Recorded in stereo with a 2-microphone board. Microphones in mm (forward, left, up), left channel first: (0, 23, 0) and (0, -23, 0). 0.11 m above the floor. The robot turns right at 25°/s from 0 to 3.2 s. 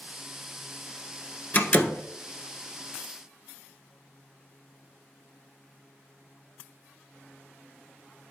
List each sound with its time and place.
1.6 s a door slam: 35° left (ahead or behind), 1.1 m